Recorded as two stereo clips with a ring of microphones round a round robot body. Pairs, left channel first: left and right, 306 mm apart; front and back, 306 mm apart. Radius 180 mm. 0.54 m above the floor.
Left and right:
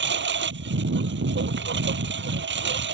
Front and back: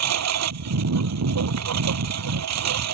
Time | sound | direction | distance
0.0 | a lawn mower | 145° right | ?